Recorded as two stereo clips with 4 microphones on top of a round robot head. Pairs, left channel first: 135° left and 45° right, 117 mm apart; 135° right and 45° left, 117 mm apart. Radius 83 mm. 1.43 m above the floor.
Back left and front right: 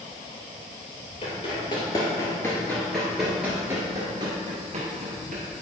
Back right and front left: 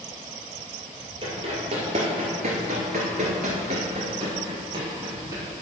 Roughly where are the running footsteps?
Left.